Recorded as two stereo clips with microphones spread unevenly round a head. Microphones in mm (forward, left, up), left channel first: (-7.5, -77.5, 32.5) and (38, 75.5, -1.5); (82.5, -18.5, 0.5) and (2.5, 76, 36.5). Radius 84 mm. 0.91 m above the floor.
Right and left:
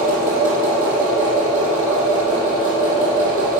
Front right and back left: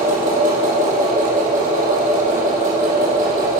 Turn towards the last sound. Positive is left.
turn(degrees=120)